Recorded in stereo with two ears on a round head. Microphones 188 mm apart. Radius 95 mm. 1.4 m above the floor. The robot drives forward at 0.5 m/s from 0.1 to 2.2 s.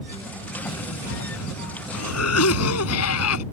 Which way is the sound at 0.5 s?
85° left.